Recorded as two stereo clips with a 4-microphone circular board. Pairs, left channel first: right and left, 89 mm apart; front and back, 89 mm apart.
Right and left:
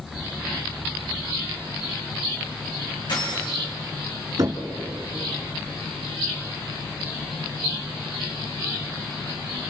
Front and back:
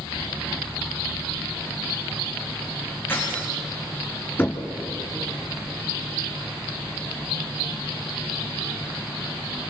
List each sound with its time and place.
3.1 s keys jangling: 65° right, 9 m
4.4 s knocking: 65° left, 2 m